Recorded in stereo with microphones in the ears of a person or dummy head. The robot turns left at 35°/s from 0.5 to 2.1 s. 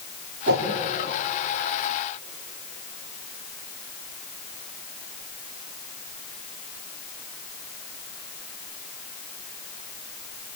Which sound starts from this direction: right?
A whoosh, at 0.5 s.